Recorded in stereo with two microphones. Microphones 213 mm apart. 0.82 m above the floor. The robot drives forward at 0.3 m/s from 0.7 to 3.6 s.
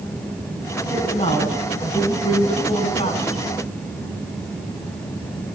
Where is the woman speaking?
30° left (ahead or behind), 8 m; by 3.5 s 25° left (ahead or behind), 9 m.